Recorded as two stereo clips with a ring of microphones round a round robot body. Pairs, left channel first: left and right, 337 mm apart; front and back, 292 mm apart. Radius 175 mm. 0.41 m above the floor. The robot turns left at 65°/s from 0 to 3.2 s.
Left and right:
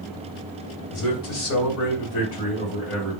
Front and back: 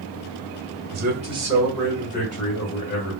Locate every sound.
0.9 s a man speaking: 135° left, 1.8 m; by 3.2 s 10° right, 1.8 m